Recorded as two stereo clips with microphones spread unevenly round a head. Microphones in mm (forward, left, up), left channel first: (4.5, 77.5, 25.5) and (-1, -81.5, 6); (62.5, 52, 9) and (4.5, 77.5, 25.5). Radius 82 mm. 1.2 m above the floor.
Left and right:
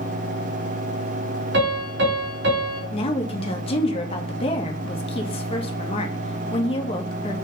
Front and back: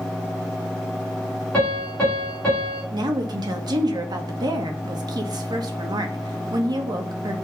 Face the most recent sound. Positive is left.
turn(degrees=145)